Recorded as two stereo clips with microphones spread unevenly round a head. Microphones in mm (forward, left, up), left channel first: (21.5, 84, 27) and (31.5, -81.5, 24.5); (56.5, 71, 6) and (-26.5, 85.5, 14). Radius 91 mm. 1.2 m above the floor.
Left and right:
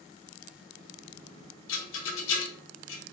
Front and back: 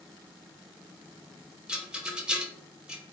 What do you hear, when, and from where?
1.7 s a rattle: 90° left, 0.7 m